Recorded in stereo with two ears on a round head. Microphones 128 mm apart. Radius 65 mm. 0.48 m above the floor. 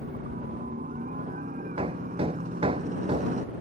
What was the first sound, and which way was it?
A helicopter, 50° right (ahead or behind).